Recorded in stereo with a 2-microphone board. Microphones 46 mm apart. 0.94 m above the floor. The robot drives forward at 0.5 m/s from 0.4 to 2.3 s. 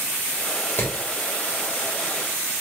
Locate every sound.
0.8 s hammering: 55° left (ahead or behind), 3.5 m